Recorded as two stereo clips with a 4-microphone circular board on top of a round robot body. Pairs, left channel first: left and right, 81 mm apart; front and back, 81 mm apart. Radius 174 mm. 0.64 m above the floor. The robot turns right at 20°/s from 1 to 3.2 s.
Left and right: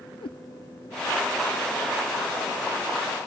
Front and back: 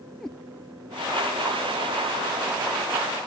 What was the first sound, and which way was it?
A cat meowing, 85° left.